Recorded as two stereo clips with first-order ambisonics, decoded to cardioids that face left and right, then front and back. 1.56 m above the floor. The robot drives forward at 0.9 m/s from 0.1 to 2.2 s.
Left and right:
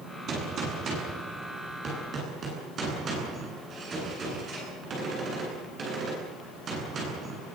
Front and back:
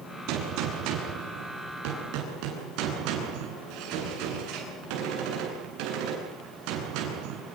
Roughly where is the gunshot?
Behind right.